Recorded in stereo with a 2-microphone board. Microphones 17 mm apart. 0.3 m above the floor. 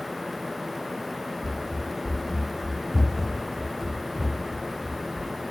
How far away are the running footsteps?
About 1.2 m.